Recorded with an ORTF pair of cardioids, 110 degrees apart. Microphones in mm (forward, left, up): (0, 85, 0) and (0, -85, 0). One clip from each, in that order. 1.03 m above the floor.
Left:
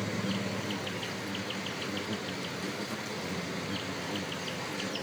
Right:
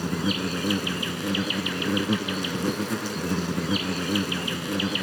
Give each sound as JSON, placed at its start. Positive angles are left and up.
{"t": 0.0, "sound": "an insect", "azimuth_deg": -65}